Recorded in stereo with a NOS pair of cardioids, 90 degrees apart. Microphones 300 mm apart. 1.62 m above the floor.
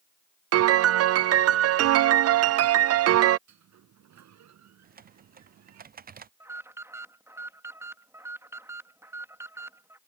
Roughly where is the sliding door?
Ahead right.